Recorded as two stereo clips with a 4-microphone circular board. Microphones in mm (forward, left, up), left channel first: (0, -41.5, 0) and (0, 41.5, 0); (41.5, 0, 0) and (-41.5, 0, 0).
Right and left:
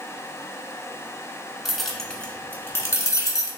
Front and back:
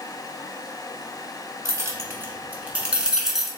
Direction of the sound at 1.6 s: 175° left.